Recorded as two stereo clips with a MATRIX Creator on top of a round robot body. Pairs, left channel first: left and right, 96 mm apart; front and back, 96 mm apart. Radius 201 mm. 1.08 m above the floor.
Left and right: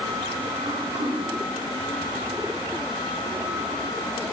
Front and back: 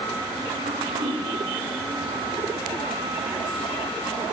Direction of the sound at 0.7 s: 125° right.